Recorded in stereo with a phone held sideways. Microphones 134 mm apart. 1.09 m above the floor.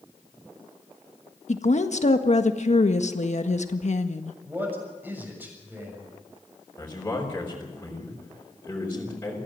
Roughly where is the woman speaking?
Left.